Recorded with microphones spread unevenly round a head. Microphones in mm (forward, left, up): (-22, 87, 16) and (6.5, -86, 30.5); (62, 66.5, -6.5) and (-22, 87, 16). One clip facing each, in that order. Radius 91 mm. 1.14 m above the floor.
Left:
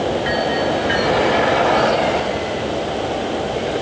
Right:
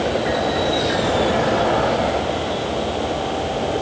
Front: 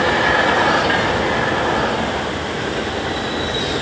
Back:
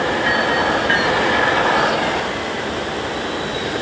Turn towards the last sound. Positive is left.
No sound to turn to.